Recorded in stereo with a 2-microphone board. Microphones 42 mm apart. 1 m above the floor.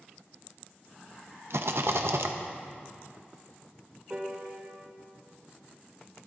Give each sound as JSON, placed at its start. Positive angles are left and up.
{"t": 1.5, "sound": "a rattle", "side_deg": -70, "distance_m": 0.7}
{"t": 4.1, "sound": "a piano", "side_deg": -30, "distance_m": 1.5}